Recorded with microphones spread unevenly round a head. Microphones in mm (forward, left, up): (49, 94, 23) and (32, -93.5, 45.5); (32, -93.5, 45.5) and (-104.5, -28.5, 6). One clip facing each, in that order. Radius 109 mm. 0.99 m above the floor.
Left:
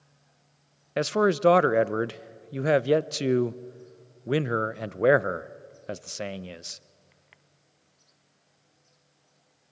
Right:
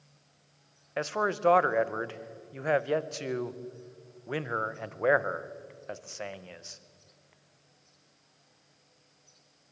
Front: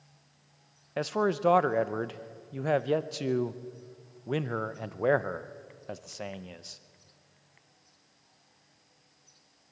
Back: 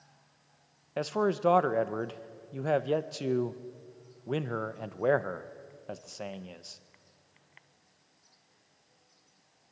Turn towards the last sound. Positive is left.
turn(degrees=80)